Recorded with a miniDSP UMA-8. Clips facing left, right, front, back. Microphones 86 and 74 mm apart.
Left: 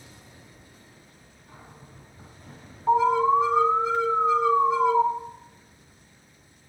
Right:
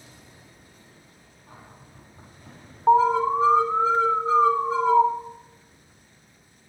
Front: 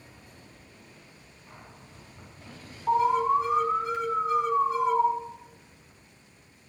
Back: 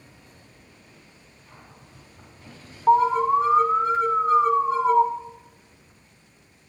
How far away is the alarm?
About 2 m.